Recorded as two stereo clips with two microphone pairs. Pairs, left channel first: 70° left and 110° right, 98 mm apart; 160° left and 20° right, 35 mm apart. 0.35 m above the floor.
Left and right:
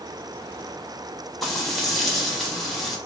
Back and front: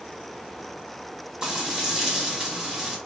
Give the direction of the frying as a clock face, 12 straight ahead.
1 o'clock.